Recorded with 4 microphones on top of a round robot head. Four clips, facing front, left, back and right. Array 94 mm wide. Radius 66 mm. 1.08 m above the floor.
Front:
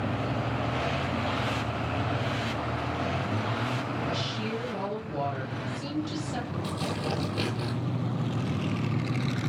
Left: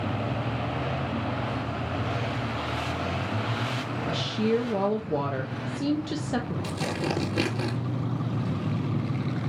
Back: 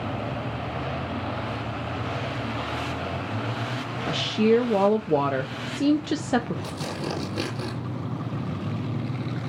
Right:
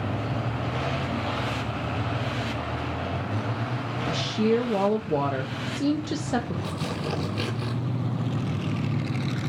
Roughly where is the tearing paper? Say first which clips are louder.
Left 1 dB, even; left.